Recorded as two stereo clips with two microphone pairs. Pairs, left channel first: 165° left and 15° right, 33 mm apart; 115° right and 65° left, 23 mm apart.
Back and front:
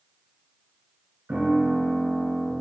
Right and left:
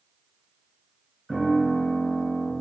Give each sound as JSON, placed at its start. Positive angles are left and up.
{"t": 1.3, "sound": "a piano", "azimuth_deg": -20, "distance_m": 3.5}